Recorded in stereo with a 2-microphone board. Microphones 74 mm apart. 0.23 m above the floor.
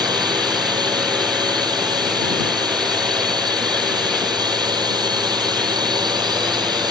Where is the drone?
75° right (ahead or behind).